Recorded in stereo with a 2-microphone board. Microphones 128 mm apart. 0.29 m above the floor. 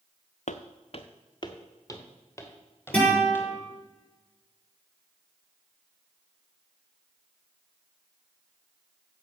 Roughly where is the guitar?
Centre.